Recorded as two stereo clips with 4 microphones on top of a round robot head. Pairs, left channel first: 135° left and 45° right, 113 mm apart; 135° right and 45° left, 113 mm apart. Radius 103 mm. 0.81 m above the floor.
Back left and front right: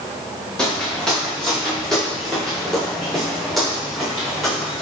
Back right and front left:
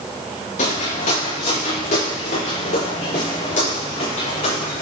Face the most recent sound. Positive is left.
turn(degrees=-135)